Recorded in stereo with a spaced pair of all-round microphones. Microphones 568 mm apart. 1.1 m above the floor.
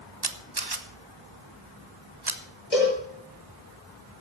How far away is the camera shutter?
About 1.1 m.